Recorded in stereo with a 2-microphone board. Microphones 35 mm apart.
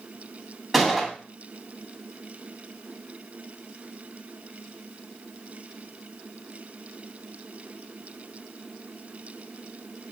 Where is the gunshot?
Centre (ahead or behind), 1.8 m.